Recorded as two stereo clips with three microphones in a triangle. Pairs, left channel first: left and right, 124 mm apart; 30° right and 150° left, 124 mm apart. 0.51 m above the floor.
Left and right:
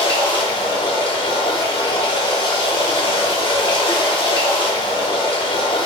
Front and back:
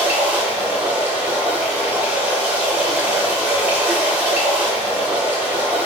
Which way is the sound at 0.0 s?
80° left.